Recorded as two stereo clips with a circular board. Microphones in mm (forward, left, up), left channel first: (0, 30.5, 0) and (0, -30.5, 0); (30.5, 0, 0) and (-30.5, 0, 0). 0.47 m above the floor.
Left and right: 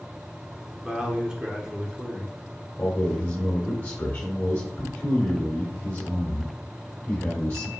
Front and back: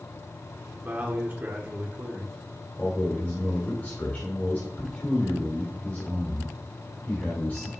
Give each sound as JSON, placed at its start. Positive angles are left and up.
{"t": 0.8, "sound": "a man speaking", "azimuth_deg": -155, "distance_m": 1.0}
{"t": 2.8, "sound": "a man speaking", "azimuth_deg": 45, "distance_m": 1.7}